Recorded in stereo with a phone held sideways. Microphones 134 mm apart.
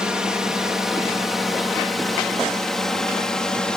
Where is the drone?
5° right (ahead or behind); by 3.8 s 5° left (ahead or behind).